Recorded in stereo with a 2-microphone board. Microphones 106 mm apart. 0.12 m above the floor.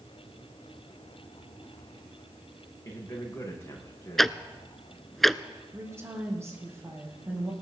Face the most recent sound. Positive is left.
turn(degrees=-25)  # may be behind; listen again after turning